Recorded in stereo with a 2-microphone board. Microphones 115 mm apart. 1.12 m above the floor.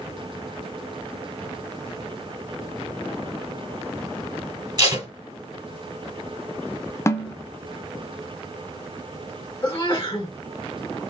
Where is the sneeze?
40° left (ahead or behind), 1.7 m.